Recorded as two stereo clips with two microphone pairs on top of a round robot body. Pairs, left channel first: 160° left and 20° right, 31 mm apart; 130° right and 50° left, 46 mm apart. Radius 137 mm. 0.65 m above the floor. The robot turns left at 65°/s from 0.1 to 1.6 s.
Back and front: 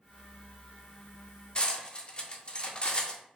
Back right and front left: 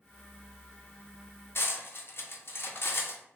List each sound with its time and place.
1.6 s cutlery clinking: 150° right, 0.7 m; by 3.2 s 155° right, 0.7 m